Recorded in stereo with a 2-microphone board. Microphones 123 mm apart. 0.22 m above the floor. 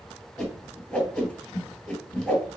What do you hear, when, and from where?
0.4 s a whoosh: 5° left (ahead or behind), 2 m